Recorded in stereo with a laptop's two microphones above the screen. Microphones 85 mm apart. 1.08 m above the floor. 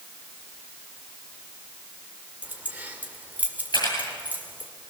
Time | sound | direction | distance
2.4 | keys jangling | 20° right (ahead or behind) | 3 m
3.7 | a camera shutter | 60° left (ahead or behind) | 9.5 m